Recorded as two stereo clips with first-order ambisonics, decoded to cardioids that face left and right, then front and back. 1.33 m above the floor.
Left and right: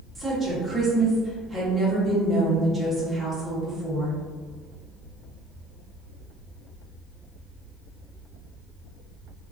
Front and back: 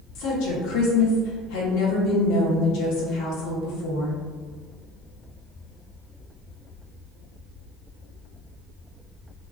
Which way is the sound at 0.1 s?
15° right.